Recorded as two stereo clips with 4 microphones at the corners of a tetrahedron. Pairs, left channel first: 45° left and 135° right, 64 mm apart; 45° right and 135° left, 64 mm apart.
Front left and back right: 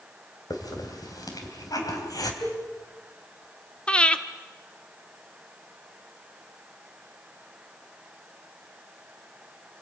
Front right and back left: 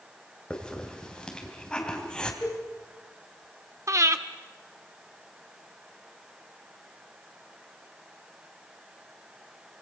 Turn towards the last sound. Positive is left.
turn(degrees=115)